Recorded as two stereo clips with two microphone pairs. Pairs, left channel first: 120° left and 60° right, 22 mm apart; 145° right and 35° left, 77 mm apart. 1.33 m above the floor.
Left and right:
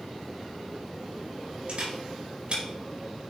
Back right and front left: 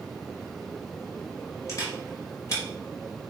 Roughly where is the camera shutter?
Right.